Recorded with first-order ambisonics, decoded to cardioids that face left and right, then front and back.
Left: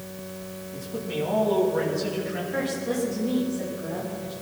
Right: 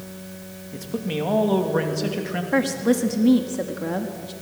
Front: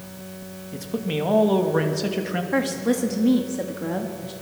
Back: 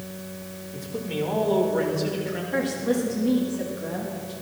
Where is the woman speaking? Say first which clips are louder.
Right 8 dB, front 1 dB; 60° right, 1.5 m.